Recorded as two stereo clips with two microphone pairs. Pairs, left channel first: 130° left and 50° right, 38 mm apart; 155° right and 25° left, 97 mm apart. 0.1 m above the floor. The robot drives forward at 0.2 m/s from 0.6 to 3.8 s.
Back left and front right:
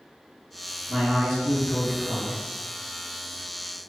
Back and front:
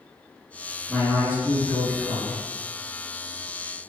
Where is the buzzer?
I don't hear a buzzer.